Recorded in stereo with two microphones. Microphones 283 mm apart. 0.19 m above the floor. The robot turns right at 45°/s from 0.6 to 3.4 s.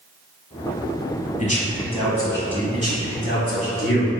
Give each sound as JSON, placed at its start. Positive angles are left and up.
{"t": 1.4, "sound": "a man speaking", "azimuth_deg": 115, "distance_m": 1.1}
{"t": 2.7, "sound": "a man speaking", "side_deg": -25, "distance_m": 1.3}